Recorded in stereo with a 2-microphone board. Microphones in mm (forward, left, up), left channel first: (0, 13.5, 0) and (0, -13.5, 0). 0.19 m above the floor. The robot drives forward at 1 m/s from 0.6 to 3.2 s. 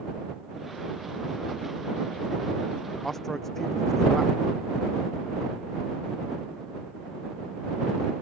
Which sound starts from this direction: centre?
A man speaking, at 3.0 s.